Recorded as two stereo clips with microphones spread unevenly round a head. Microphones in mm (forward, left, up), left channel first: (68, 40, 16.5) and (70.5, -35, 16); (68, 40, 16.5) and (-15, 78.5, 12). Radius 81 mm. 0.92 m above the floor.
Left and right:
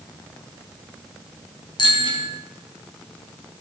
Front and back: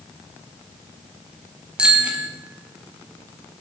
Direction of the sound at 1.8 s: 75° left.